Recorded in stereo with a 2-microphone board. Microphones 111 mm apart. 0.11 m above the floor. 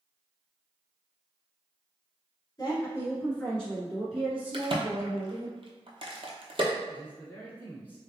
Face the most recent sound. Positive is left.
turn(degrees=15)  # may be behind; listen again after turning